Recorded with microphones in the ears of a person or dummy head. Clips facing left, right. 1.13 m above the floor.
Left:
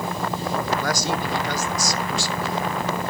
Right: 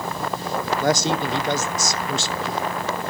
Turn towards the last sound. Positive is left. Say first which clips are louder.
# right 4 dB
turn(degrees=-25)  # may be behind; listen again after turning